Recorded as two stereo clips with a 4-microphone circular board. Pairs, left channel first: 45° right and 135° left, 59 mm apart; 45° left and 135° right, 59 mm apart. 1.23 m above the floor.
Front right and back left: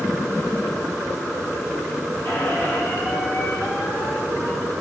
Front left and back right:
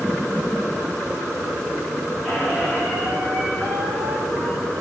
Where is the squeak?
40° right, 1.8 m.